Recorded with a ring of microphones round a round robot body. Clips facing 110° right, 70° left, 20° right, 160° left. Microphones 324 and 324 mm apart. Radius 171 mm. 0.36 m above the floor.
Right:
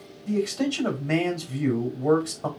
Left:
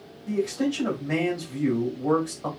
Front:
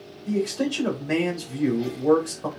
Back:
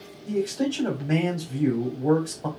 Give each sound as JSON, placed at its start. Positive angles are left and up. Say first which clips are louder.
{"t": 0.3, "sound": "a man speaking", "louder": "even, front 1 dB", "azimuth_deg": -90, "distance_m": 3.0}